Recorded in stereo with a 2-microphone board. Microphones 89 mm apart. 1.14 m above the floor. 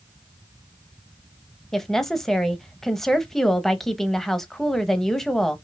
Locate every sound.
1.7 s a woman speaking: 5° left (ahead or behind), 1.0 m